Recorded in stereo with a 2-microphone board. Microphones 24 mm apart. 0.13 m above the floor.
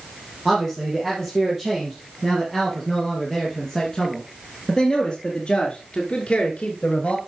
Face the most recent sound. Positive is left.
turn(degrees=55)  # may be behind; listen again after turning